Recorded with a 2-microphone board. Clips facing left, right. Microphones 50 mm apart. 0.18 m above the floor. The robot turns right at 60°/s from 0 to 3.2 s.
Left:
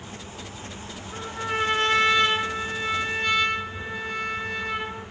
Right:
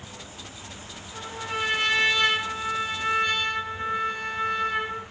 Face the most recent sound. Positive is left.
turn(degrees=-145)